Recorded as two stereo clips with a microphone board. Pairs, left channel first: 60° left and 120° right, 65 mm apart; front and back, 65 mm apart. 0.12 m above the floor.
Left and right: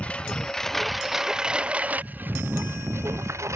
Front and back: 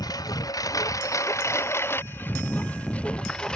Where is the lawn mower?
10° right; by 3.5 s 80° right.